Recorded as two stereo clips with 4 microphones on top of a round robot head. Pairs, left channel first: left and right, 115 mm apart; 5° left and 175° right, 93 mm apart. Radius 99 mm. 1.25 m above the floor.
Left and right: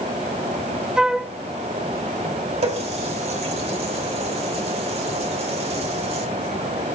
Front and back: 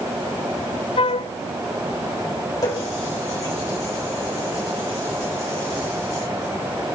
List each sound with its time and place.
1.0 s a flute: 5° right, 0.5 m
2.6 s a running tap: 55° right, 3.5 m